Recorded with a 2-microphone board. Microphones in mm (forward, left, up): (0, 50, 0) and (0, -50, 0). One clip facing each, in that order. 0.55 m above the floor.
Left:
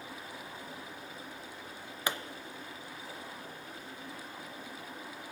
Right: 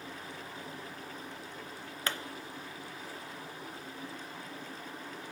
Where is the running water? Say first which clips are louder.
Right 1 dB; 80° right, 9 m.